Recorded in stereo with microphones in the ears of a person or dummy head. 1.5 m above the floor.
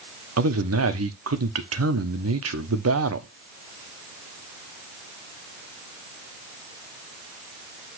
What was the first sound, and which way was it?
A man speaking, 80° right.